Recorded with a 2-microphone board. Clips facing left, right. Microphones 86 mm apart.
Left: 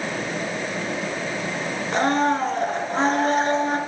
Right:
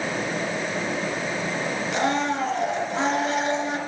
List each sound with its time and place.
1.9 s a blender: 45° left (ahead or behind), 1.7 m